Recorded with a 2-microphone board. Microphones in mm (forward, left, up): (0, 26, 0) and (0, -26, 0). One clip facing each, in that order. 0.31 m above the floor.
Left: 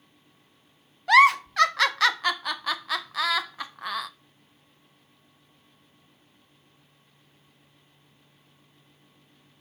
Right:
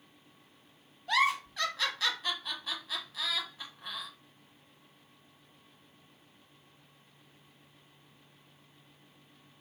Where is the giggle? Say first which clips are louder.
Left 11 dB; 80° left, 0.5 m.